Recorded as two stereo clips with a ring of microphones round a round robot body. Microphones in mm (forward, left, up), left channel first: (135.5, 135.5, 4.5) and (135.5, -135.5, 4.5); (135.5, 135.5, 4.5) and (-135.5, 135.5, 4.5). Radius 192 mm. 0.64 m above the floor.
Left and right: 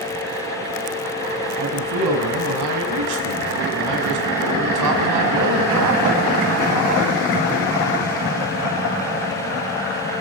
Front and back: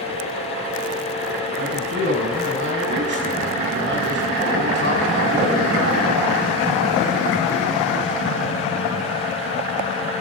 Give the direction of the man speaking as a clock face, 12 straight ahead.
4 o'clock.